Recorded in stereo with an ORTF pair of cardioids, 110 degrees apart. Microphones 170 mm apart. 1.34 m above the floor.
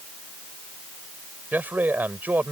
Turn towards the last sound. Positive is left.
turn(degrees=-10)